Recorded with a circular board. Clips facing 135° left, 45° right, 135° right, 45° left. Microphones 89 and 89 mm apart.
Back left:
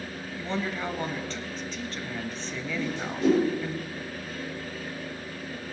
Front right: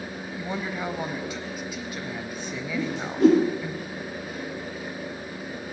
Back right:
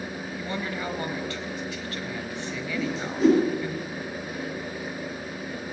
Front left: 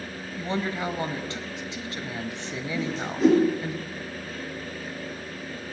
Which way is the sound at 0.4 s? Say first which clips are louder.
Even, front left 4 dB; 20° left.